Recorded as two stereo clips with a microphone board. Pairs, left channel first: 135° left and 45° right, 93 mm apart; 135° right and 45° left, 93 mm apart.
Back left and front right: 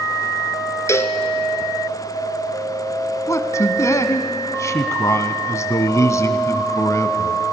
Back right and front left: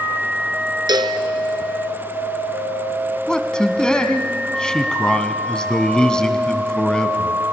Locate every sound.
0.9 s a cowbell: 75° left, 1.0 m
3.3 s a man speaking: 150° left, 1.1 m